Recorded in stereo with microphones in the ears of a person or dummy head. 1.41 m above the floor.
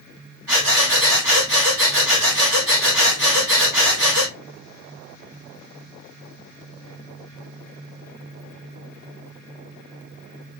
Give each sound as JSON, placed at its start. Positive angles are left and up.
{"t": 0.5, "sound": "breathing", "side_deg": -60, "distance_m": 2.0}